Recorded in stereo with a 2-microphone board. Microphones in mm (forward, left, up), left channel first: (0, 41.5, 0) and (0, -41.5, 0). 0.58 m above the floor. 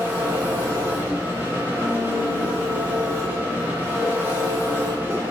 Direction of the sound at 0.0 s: 25° right (ahead or behind).